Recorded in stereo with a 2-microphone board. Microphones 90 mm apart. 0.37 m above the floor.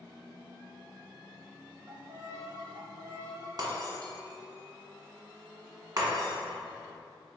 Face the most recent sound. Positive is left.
turn(degrees=-45)  # may be behind; listen again after turning